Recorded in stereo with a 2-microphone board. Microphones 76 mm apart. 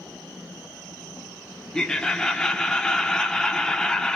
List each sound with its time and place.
1.7 s laughter: 10° left (ahead or behind), 1.1 m